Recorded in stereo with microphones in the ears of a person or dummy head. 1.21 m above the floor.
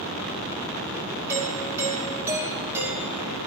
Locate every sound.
1.3 s a doorbell: 10° right (ahead or behind), 2 m